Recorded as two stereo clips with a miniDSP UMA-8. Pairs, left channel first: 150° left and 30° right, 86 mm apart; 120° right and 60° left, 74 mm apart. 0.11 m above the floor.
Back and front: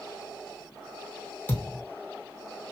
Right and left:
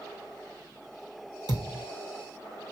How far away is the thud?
About 1.6 m.